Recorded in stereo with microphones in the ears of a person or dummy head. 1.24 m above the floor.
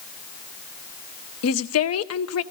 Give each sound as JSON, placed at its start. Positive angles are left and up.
{"t": 1.4, "sound": "a woman speaking", "side_deg": 75, "distance_m": 0.6}